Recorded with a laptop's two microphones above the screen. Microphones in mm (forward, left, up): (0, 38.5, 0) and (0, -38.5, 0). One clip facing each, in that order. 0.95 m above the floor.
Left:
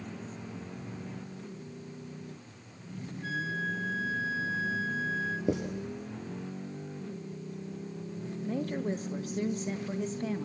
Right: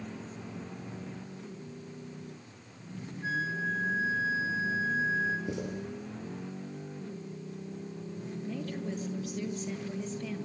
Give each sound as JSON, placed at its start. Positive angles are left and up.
{"t": 3.2, "sound": "a flute", "side_deg": -25, "distance_m": 2.5}
{"t": 5.5, "sound": "writing", "side_deg": 60, "distance_m": 7.0}
{"t": 8.4, "sound": "a woman speaking", "side_deg": 40, "distance_m": 1.3}